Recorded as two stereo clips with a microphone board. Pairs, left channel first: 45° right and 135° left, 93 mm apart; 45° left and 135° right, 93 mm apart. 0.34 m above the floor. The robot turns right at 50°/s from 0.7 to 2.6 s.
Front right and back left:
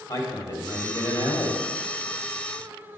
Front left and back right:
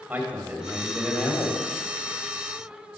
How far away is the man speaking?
About 1.3 m.